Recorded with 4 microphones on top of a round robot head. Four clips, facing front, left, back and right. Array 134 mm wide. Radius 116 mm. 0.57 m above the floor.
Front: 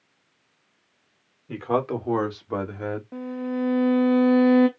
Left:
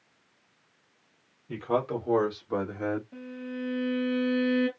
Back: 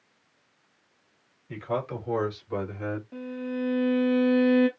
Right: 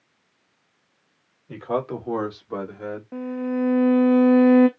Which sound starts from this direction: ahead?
A man speaking, at 1.5 s.